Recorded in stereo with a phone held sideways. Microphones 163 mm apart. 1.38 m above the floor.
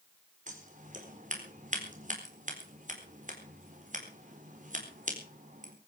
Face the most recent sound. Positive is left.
turn(degrees=-50)  # may be behind; listen again after turning